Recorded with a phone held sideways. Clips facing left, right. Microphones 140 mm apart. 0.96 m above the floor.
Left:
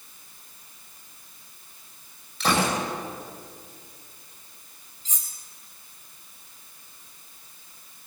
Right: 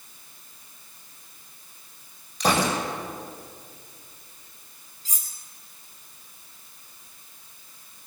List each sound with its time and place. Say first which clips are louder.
2.4 s a gunshot: right 1 dB; 40° right (ahead or behind), 7.5 m
5.0 s cutlery clinking: even; 40° right (ahead or behind), 5 m